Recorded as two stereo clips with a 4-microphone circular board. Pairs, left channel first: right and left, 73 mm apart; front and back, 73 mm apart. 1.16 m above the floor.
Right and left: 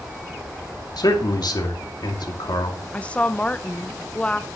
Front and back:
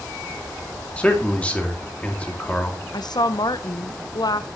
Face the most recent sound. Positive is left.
turn(degrees=-20)